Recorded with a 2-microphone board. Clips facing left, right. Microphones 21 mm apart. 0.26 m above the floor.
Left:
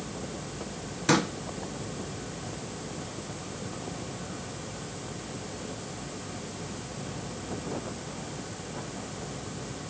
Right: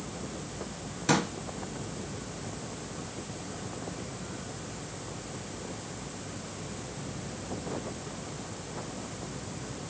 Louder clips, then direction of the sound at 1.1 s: Left 2 dB; 15° left (ahead or behind).